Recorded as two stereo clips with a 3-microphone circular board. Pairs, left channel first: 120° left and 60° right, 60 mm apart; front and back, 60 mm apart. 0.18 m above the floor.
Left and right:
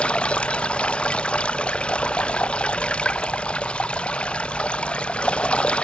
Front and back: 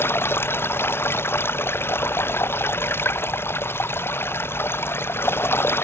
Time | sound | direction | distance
0.0 | running water | 50° left | ?